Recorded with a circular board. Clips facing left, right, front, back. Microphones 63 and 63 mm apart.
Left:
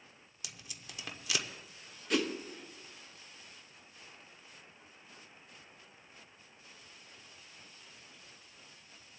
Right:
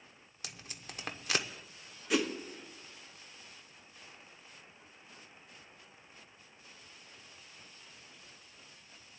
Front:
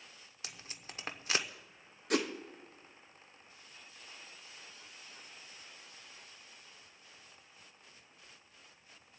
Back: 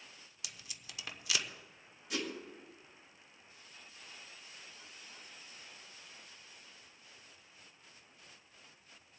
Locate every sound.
0.4 s tape being pulled: 50° right, 0.8 m
2.1 s a whoosh: 10° right, 1.1 m